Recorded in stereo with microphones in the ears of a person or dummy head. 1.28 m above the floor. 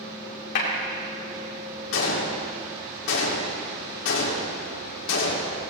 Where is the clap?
60° left (ahead or behind), 2.5 m.